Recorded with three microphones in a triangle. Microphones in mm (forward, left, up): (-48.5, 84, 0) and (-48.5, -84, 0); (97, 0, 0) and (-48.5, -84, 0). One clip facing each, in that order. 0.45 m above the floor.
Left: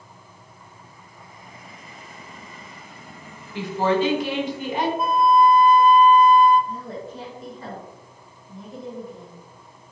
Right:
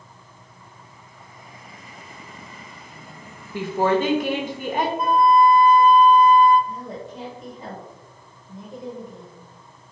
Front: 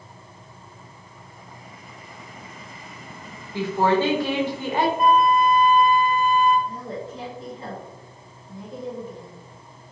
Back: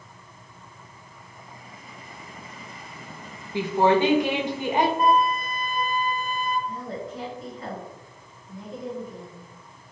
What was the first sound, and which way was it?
A woman speaking, 80° right.